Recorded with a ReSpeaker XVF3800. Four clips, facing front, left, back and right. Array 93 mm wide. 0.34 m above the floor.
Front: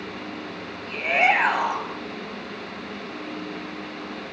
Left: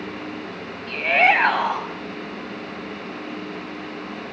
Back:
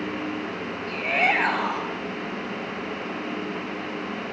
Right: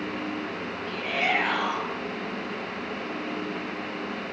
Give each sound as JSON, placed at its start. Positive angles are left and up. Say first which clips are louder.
{"t": 0.9, "sound": "a shout", "louder": "left 10 dB, front 3 dB", "azimuth_deg": 70, "distance_m": 2.5}